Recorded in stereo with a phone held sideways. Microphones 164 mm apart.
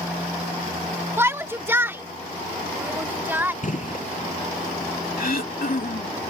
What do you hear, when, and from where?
1.2 s a shout: 15° right (ahead or behind)
3.6 s a gunshot: 55° left (ahead or behind)
5.2 s throat clearing: 70° left (ahead or behind)